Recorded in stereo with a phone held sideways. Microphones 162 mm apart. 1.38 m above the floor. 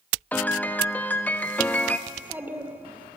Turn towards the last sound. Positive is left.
turn(degrees=-10)  # may be behind; listen again after turning